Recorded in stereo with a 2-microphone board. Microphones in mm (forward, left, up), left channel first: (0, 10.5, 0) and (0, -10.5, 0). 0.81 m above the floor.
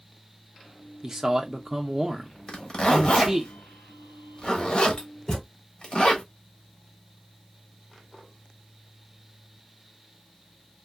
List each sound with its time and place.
1.0 s a man speaking: 20° right (ahead or behind), 0.7 m
2.5 s a zipper: 40° left (ahead or behind), 1.3 m
5.3 s a thud: 30° left (ahead or behind), 1.4 m